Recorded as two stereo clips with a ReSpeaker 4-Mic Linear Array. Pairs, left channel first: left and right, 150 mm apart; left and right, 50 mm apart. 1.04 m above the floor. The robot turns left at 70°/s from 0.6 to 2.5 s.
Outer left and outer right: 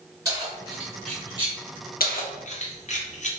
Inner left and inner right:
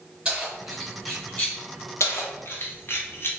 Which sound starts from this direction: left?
Keys jangling, at 2.0 s.